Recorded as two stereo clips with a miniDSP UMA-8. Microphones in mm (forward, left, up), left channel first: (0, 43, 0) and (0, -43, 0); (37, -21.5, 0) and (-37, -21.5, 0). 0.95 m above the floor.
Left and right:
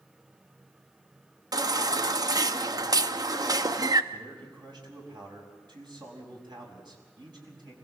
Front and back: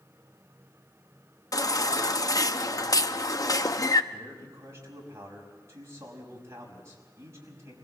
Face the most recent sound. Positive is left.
turn(degrees=-125)